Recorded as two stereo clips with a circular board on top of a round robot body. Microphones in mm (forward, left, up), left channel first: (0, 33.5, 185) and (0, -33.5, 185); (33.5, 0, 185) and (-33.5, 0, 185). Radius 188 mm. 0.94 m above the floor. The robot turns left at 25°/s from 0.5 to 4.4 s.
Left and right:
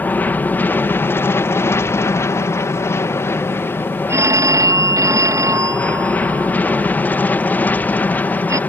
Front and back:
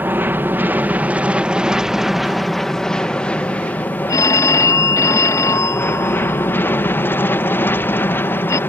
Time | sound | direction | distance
0.0 | an aircraft | 140° left | ?
4.1 | a phone ringing | 40° right | ?